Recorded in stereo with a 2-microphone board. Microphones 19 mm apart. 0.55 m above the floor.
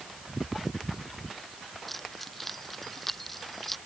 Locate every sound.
1.9 s keys jangling: 10° left (ahead or behind)